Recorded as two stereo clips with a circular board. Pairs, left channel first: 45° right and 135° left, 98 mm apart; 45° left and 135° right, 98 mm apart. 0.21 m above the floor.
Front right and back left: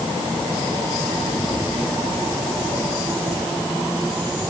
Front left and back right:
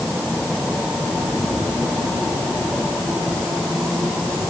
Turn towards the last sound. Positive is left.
No sound to turn to.